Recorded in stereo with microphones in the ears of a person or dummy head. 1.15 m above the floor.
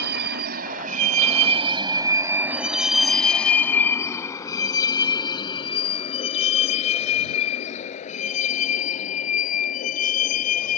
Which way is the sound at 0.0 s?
60° right (ahead or behind).